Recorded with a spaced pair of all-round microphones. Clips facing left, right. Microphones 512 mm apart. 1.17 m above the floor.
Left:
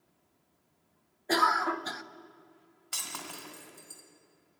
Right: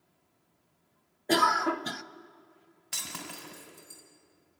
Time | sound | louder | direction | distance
1.3 | a cough | right 3 dB | 55° right (ahead or behind) | 0.5 m
2.9 | breaking glass | right 2 dB | 40° right (ahead or behind) | 2 m